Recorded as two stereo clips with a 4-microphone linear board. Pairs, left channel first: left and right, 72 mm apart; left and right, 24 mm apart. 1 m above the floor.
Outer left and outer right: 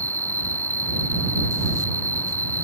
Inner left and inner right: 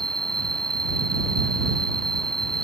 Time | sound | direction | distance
0.0 | an insect | 25° left (ahead or behind) | ?